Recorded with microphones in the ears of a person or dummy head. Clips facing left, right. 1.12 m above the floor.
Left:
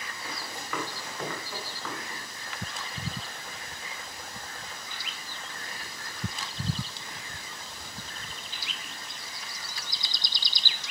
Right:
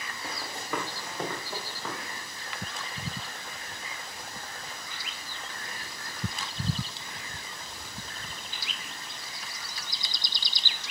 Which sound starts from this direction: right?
Running footsteps, at 0.2 s.